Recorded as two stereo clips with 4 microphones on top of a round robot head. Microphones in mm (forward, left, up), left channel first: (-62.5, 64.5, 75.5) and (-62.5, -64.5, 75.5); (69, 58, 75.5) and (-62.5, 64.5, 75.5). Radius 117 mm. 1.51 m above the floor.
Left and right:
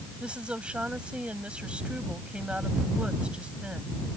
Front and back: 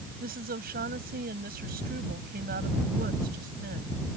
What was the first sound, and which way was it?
A woman speaking, 170° right.